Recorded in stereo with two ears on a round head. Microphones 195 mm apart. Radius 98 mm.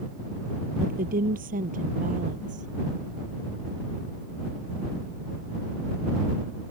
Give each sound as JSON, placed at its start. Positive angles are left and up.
{"t": 0.8, "sound": "a woman speaking", "side_deg": -40}